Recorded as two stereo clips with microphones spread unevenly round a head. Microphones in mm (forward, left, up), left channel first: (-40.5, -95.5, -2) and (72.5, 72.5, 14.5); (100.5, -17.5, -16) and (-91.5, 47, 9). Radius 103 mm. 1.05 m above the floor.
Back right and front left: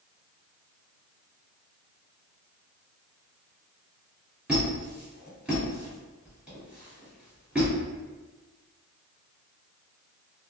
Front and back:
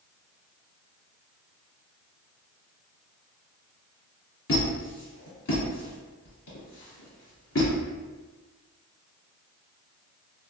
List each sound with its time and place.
4.5 s a squeak: 25° right, 1.7 m